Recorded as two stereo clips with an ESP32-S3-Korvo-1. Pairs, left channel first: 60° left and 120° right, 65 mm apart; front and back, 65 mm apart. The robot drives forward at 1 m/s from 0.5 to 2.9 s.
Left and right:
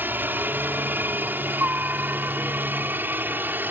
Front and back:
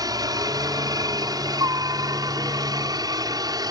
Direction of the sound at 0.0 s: Straight behind.